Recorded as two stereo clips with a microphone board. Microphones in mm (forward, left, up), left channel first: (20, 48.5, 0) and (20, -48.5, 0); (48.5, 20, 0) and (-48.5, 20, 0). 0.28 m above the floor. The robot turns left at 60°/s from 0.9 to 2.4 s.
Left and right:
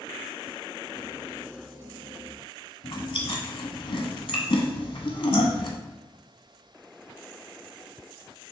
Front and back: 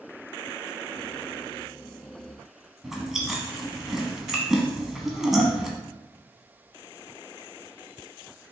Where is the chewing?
95° left, 1.0 m.